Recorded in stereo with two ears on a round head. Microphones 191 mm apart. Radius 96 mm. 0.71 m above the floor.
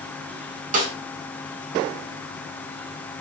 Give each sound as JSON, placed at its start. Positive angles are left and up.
{"t": 0.7, "sound": "a snare drum", "side_deg": -40, "distance_m": 1.5}